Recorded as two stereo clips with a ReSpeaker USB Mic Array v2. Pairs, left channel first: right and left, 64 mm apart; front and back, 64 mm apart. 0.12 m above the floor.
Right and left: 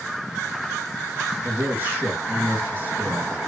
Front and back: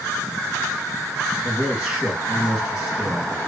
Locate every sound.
1.4 s a man speaking: 115° left, 1.3 m